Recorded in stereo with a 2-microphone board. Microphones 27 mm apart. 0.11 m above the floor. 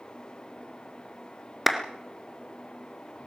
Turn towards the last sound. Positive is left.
turn(degrees=-5)  # may be behind; listen again after turning